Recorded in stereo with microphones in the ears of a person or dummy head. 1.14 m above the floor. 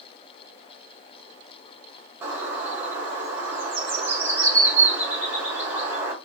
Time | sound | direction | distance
2.2 | a bird | 15° right (ahead or behind) | 0.9 m